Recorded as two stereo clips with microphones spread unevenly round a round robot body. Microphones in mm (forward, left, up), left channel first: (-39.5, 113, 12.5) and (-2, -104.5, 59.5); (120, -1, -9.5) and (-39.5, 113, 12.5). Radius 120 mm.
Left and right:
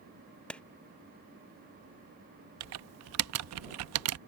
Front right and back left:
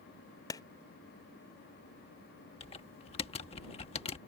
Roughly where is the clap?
Ahead left.